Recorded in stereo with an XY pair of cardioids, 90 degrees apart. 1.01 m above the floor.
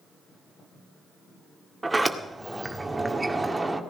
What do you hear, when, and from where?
1.8 s a sliding door: 15° right, 1.8 m